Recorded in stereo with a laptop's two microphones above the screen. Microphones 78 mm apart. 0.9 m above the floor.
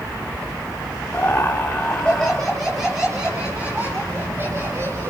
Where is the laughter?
30° left (ahead or behind), 3 m; by 5.1 s 35° right (ahead or behind), 4 m.